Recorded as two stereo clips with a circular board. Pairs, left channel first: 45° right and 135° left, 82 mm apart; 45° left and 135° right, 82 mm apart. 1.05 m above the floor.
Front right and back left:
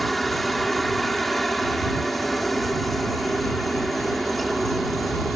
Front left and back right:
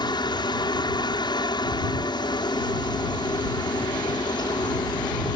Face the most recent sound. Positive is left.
turn(degrees=45)